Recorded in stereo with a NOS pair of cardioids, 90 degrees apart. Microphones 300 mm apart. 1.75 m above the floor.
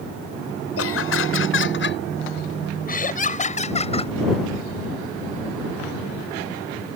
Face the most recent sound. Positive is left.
turn(degrees=20)